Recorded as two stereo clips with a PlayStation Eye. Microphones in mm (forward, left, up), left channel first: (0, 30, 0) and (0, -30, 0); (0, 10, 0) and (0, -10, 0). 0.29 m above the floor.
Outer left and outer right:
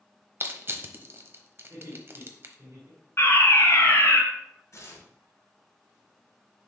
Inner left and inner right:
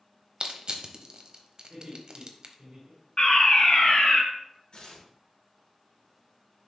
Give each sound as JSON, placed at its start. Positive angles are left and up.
{"t": 0.4, "sound": "crushing", "side_deg": -45, "distance_m": 0.9}
{"t": 1.7, "sound": "laughter", "side_deg": -55, "distance_m": 4.0}
{"t": 3.2, "sound": "a fire alarm", "side_deg": 45, "distance_m": 2.5}
{"t": 4.7, "sound": "tearing paper", "side_deg": 55, "distance_m": 2.5}